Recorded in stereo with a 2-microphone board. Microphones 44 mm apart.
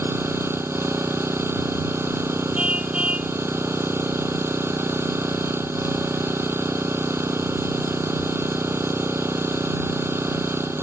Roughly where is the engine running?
Right.